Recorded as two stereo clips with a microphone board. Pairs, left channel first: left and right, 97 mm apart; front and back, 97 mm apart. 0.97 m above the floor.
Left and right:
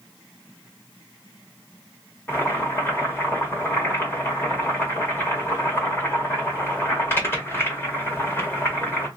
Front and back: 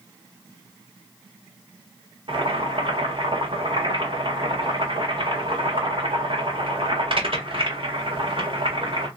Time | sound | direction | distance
2.3 | boiling | 155° left | 2 m